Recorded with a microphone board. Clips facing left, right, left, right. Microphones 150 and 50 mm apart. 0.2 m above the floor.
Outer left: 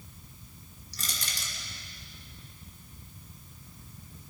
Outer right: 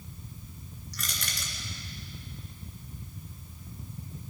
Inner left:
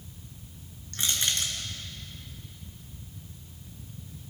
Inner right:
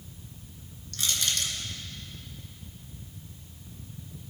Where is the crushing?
35° left (ahead or behind), 3 m.